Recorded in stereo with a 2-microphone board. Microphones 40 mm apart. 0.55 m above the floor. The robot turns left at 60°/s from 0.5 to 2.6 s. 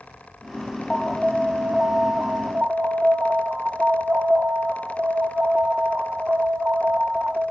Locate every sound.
0.9 s an alarm: straight ahead, 1.1 m; by 7.5 s 100° right, 1.1 m